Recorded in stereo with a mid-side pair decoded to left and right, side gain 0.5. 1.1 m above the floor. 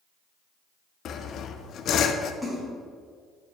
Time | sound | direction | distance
1.1 | sawing | 60° left | 0.7 m
2.4 | a splash | 10° right | 3 m